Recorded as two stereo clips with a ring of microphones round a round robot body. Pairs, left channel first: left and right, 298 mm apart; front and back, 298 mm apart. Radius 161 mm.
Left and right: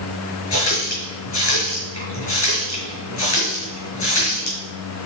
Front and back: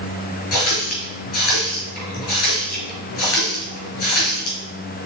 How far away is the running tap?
About 4.5 m.